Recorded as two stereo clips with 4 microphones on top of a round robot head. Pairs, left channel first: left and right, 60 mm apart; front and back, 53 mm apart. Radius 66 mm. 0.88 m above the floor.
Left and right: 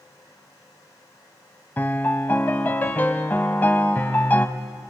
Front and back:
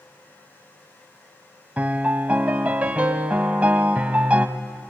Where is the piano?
135° left, 0.8 m.